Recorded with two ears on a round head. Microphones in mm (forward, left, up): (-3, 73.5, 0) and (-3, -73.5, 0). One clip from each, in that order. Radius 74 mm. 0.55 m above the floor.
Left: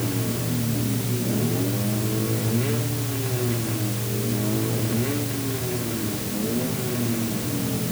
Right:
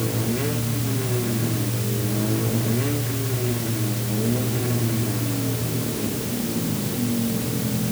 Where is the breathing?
No breathing in this recording.